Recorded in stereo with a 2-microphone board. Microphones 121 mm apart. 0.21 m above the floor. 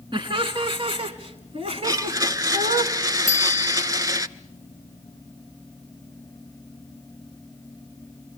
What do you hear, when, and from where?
0.1 s laughter: 40° right (ahead or behind), 2 m; by 2.8 s 50° right (ahead or behind), 1.9 m
1.8 s a blender: 30° right (ahead or behind), 0.6 m
3.3 s a bicycle bell: 25° right (ahead or behind), 2 m